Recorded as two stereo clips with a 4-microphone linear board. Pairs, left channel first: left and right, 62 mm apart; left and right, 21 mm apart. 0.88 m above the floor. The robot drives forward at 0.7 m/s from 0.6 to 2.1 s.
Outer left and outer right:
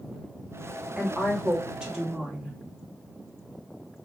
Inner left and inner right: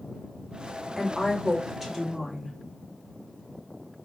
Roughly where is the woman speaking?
Centre.